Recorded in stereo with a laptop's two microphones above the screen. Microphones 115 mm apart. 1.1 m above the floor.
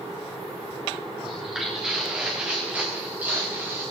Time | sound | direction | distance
1.2 | footsteps | 5° right (ahead or behind) | 7 m